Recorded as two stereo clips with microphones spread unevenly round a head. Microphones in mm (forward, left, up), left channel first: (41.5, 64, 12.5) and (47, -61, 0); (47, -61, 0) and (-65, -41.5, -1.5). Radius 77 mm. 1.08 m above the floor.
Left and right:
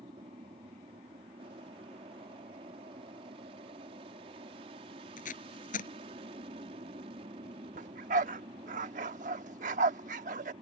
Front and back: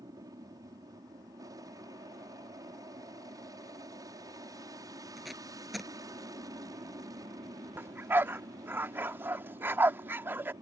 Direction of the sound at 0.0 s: 135° right.